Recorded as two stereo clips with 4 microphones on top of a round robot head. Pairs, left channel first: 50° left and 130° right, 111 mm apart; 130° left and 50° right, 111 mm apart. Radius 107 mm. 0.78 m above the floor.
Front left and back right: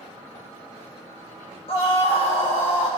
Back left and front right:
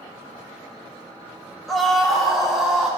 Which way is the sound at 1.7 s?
45° left.